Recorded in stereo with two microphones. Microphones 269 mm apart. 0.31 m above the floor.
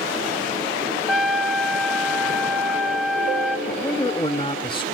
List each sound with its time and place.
1.1 s a trumpet: 5° right (ahead or behind), 1.4 m
3.7 s a man speaking: 20° left (ahead or behind), 1.4 m